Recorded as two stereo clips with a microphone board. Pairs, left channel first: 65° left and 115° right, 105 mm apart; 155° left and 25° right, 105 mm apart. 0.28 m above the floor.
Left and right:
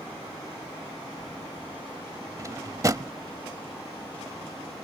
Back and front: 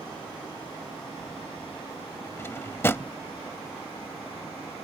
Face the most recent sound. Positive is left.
turn(degrees=-145)